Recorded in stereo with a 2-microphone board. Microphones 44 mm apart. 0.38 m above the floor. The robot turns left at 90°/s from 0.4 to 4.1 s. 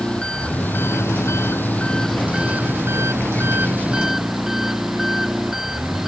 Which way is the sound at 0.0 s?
160° left.